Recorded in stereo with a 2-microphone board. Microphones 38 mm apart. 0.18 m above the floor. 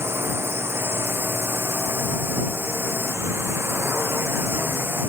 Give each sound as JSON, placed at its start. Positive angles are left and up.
{"t": 0.0, "sound": "a drone", "side_deg": -75}